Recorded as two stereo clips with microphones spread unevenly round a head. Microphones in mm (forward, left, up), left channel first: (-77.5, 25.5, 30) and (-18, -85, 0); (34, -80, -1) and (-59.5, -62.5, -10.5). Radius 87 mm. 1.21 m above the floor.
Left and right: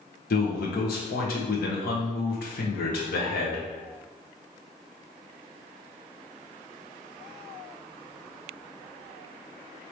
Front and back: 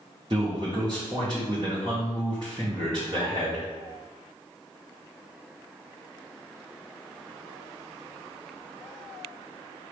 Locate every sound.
0.3 s a man speaking: 110° left, 1.1 m